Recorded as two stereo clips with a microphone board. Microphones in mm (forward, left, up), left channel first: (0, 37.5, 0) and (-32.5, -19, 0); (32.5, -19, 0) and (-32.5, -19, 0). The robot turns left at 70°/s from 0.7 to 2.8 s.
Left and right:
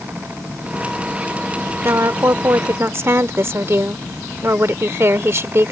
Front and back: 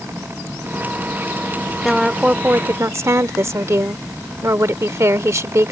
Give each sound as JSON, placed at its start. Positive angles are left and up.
{"t": 1.8, "sound": "a woman speaking", "azimuth_deg": -85}